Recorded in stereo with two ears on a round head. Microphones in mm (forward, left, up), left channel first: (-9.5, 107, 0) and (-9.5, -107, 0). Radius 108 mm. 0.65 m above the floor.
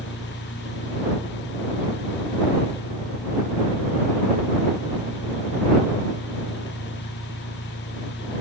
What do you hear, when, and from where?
0.0 s an engine running: 30° left (ahead or behind)